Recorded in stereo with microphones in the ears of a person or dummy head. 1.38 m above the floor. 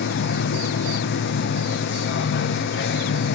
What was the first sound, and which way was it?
A machine running, 60° left (ahead or behind).